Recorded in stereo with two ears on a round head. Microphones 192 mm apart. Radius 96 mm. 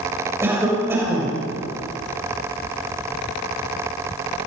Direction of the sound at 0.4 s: 10° right (ahead or behind).